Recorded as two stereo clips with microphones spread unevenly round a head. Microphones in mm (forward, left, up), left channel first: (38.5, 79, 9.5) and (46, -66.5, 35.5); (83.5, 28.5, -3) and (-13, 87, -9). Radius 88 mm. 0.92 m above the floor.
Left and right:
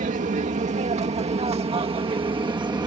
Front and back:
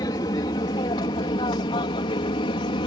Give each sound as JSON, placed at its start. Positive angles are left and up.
{"t": 0.0, "sound": "an aircraft", "azimuth_deg": -80}